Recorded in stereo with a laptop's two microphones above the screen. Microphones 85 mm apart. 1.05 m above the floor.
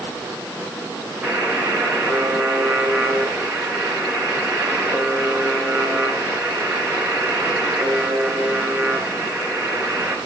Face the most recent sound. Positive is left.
turn(degrees=-25)  # may be behind; listen again after turning